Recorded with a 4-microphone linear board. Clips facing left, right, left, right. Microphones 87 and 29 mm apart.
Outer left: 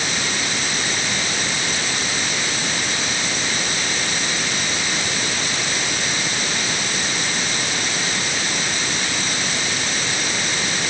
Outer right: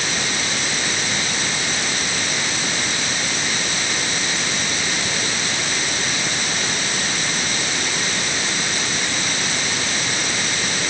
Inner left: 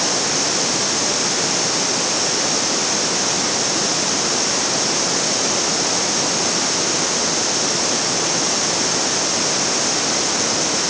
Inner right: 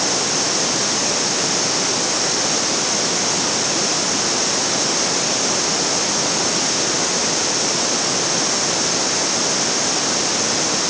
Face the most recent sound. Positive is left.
No sound to turn to.